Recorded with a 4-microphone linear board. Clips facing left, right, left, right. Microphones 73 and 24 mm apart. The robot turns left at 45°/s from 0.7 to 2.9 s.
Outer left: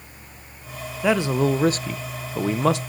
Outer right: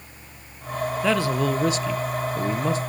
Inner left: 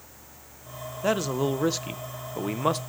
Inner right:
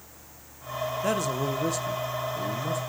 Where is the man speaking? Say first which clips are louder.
Outer left 3 dB, inner left 4 dB; 170° left, 0.5 m; by 2.8 s 90° left, 0.5 m.